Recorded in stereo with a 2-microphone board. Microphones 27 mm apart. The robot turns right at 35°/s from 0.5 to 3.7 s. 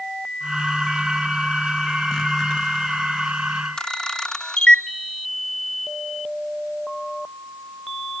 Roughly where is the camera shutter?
Left.